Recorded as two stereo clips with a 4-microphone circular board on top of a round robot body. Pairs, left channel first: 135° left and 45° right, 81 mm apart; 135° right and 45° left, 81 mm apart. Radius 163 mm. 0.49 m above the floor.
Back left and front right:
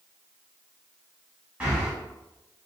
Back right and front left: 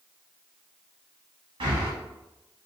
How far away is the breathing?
About 0.7 m.